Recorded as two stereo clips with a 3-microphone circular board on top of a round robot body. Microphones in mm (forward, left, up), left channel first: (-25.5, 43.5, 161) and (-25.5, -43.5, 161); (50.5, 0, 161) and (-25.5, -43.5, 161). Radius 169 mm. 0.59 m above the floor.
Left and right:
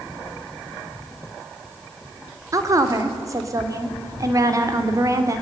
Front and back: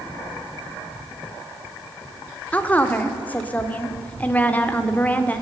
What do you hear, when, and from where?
2.5 s a woman speaking: 40° right, 2.5 m